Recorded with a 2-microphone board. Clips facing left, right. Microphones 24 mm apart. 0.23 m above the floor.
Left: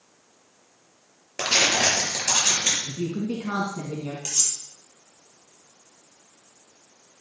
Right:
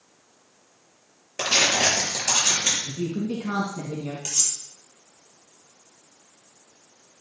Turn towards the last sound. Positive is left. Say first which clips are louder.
# even
turn(degrees=0)  # may be behind; listen again after turning